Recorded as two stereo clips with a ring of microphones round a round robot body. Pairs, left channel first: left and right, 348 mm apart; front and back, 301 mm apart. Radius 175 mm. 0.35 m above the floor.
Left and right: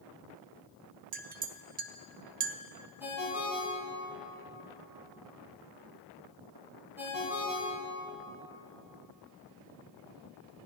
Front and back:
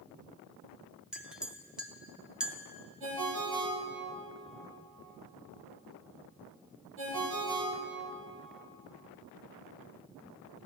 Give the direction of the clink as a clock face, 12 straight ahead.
3 o'clock.